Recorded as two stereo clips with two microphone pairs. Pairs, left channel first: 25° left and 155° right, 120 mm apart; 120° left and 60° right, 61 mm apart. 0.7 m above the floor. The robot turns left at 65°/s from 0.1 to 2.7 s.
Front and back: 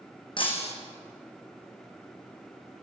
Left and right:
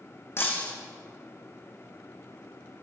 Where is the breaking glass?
70° left, 3.5 m; by 0.7 s 45° left, 3.5 m.